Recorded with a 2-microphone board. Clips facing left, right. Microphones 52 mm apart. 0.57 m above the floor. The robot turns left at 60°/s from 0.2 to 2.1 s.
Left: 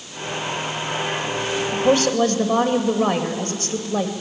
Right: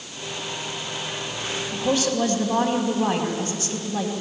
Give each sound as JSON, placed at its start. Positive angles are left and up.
{"t": 1.7, "sound": "a woman speaking", "side_deg": 30, "distance_m": 2.5}